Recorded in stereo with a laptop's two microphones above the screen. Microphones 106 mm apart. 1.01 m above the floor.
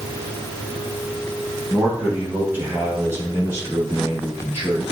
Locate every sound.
1.7 s a man speaking: 10° right (ahead or behind), 1.3 m; by 4.8 s 30° right (ahead or behind), 3.5 m